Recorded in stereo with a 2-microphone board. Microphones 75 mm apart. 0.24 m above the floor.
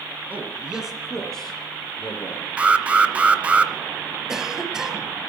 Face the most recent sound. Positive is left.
turn(degrees=-10)  # may be behind; listen again after turning